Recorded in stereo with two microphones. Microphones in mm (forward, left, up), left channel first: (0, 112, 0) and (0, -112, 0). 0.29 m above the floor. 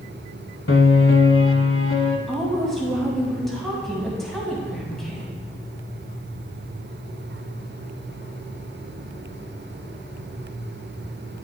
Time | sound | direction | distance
0.7 | a piano | 65° left (ahead or behind) | 0.6 m
2.3 | a woman speaking | centre (ahead or behind) | 2.5 m